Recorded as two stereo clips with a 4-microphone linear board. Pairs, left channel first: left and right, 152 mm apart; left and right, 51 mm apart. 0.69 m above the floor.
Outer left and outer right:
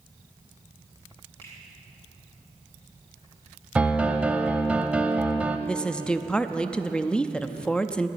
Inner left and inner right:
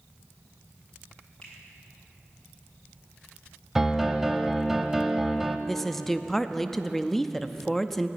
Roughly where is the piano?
Centre.